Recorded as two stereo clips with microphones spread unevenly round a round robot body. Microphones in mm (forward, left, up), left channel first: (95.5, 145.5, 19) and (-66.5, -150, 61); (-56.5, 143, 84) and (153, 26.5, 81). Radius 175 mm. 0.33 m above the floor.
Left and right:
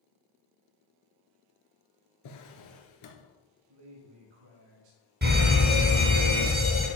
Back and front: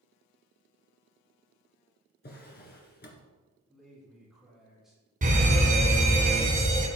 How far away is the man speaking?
About 3.5 m.